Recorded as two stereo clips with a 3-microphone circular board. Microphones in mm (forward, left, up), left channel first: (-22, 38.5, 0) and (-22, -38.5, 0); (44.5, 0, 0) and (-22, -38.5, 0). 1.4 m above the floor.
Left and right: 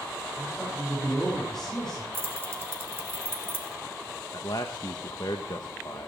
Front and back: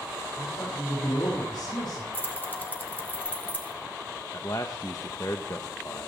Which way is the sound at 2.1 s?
35° right.